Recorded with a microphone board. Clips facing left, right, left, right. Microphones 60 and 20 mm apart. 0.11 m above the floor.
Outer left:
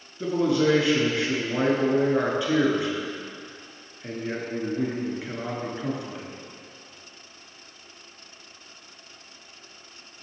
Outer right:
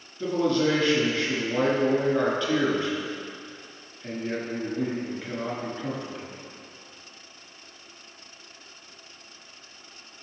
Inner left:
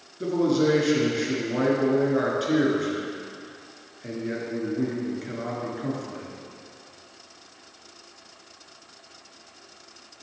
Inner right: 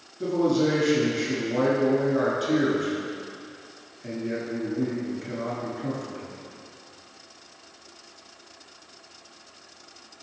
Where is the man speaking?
15° left (ahead or behind), 1.4 m.